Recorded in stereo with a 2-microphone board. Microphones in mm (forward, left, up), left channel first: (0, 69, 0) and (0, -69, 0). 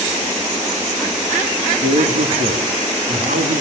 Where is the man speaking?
90° right, 3 m.